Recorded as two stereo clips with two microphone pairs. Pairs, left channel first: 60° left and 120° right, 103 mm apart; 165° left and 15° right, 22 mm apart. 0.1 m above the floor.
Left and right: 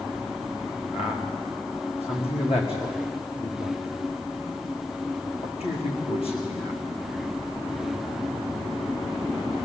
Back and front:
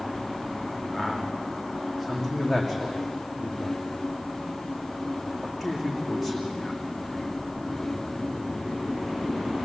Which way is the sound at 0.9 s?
75° left.